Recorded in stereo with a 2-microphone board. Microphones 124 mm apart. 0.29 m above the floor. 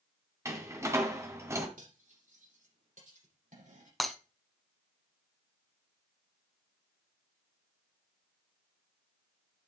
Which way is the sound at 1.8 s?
80° right.